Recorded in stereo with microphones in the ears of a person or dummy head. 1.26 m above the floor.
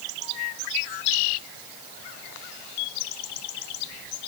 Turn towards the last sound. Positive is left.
No sound to turn to.